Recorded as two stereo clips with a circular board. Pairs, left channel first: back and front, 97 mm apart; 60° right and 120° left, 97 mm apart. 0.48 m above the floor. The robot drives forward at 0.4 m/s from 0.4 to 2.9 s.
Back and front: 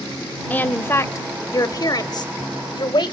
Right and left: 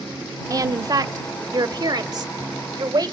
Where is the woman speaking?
120° left, 0.9 m; by 3.1 s 160° left, 1.5 m.